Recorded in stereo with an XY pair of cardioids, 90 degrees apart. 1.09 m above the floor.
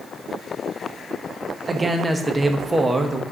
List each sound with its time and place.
1.7 s a man speaking: 25° right, 1.2 m